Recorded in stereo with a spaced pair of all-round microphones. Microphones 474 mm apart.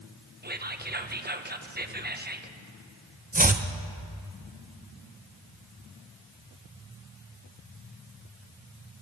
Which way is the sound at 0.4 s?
20° right (ahead or behind).